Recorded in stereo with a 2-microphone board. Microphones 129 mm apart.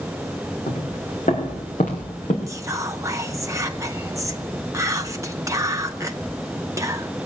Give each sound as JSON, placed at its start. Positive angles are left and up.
{"t": 0.7, "sound": "footsteps", "side_deg": 75, "distance_m": 6.5}
{"t": 2.5, "sound": "whispering", "side_deg": -25, "distance_m": 0.7}